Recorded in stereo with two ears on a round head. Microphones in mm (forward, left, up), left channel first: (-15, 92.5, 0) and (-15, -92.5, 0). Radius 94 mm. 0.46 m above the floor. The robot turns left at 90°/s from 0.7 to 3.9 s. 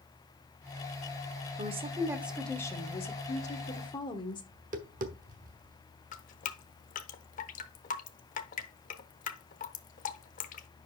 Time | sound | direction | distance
1.6 | a woman speaking | 110° right | 1.1 m
4.5 | tapping | 40° right (ahead or behind) | 1.0 m
6.1 | dripping | 40° left (ahead or behind) | 0.8 m